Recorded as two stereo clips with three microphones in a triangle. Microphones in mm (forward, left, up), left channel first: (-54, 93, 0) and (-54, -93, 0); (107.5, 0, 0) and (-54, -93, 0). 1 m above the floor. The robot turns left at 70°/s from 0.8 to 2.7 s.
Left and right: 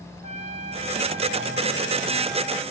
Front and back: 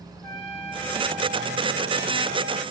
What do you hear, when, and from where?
0.2 s a trumpet: 40° right, 3 m; by 2.6 s 165° right, 3 m